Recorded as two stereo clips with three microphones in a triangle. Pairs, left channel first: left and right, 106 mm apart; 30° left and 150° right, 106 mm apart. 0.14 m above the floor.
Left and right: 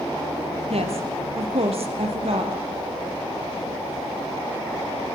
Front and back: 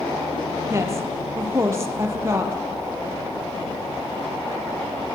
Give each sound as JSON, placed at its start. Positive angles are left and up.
{"t": 0.7, "sound": "a woman speaking", "azimuth_deg": -85, "distance_m": 4.0}